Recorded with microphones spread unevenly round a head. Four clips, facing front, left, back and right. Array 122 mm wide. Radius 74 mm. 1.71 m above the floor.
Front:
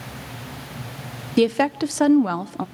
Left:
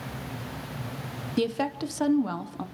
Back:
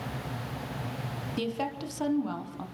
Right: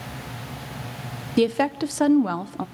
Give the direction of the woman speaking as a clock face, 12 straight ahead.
1 o'clock.